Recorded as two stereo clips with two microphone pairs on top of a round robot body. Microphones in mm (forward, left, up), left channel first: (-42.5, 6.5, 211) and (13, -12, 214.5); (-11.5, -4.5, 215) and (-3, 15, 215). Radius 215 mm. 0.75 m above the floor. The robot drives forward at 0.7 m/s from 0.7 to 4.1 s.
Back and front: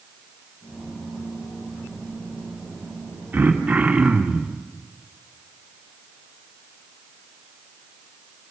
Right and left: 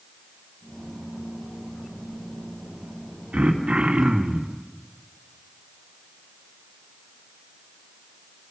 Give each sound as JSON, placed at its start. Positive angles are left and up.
{"t": 3.3, "sound": "throat clearing", "azimuth_deg": 45, "distance_m": 2.5}